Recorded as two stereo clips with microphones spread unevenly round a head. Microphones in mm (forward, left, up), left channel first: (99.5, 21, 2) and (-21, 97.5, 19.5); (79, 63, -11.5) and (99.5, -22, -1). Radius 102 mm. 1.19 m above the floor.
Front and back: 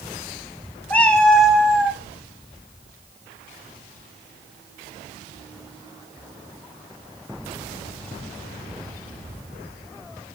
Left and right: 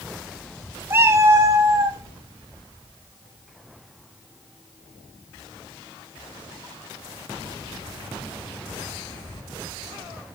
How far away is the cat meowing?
About 1.1 m.